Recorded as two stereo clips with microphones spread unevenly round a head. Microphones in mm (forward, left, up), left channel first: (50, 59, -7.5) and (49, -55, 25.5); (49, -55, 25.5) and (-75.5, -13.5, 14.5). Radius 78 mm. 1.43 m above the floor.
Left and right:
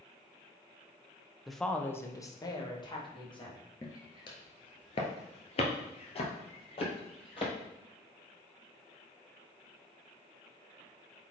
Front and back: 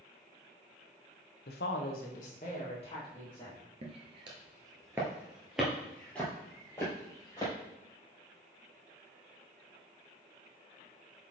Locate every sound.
1.5 s a woman speaking: 5° right, 1.0 m; by 3.6 s 45° left, 2.5 m
3.8 s footsteps: 165° left, 1.6 m; by 7.5 s 45° left, 3 m